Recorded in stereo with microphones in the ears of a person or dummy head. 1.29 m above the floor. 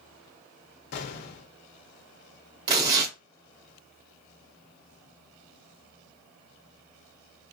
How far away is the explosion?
About 0.9 m.